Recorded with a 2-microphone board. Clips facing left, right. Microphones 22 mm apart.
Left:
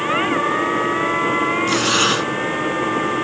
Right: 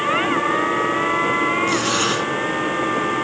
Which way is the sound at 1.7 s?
20° left (ahead or behind).